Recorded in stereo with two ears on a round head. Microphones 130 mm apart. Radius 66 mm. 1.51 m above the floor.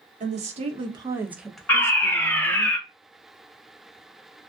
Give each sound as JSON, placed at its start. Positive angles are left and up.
{"t": 0.2, "sound": "a woman speaking", "side_deg": -55, "distance_m": 1.1}
{"t": 1.7, "sound": "a fire alarm", "side_deg": 15, "distance_m": 0.6}